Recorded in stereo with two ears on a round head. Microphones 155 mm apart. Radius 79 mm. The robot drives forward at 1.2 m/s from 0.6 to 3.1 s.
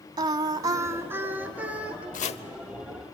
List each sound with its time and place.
0.2 s singing: 25° right (ahead or behind), 0.8 m; by 2.0 s 5° right (ahead or behind), 2.5 m
2.1 s chopping: 50° left (ahead or behind), 0.6 m; by 2.4 s 30° left (ahead or behind), 0.9 m